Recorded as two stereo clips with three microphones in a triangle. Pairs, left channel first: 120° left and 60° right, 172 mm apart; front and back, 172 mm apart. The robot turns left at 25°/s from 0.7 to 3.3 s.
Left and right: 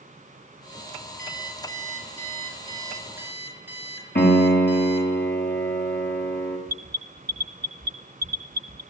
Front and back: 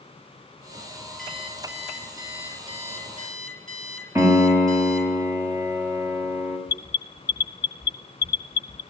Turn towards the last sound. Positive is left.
turn(degrees=-65)